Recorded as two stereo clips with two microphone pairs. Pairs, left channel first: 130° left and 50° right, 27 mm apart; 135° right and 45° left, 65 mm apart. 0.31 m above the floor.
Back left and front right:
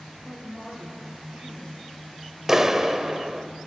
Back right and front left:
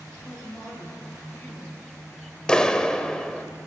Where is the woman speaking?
80° right, 6 m.